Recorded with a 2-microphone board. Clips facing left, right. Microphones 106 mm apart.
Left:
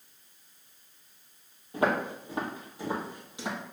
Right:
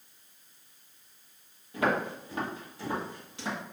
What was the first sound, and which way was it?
Footsteps, 30° left (ahead or behind).